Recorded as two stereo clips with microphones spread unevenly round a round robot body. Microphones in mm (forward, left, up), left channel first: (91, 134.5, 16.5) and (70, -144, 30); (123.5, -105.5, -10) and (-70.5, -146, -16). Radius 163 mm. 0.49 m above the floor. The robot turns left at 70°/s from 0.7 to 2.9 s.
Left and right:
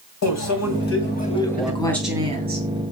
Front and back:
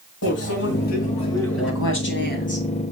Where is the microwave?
60° left, 3 m; by 1.7 s 10° right, 3 m.